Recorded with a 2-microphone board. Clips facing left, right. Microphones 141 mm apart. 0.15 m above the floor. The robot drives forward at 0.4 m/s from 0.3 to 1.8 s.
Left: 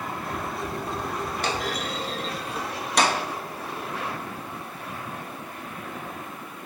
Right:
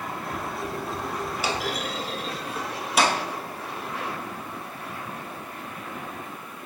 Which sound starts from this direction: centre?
A clunk, at 1.4 s.